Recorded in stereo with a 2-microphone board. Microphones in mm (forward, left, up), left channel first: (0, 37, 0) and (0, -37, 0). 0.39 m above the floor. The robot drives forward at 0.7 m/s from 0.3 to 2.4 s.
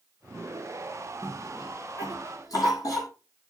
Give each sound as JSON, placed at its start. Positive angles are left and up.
{"t": 1.2, "sound": "a cough", "side_deg": 65, "distance_m": 5.0}